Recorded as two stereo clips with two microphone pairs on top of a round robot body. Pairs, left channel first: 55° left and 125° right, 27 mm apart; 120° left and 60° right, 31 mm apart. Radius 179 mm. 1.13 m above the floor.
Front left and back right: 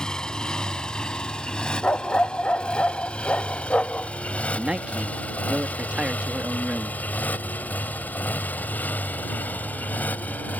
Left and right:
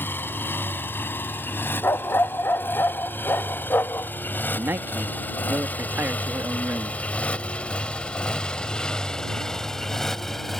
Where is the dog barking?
100° left.